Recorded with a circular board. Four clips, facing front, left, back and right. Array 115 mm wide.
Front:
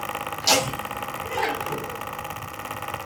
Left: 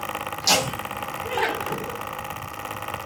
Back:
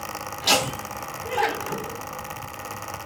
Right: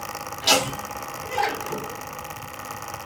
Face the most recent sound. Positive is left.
turn(degrees=95)